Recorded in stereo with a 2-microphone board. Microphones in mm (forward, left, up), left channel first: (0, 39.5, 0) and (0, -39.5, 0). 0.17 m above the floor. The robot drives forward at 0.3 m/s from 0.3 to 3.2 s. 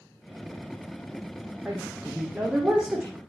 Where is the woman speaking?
10° right (ahead or behind), 9.5 m.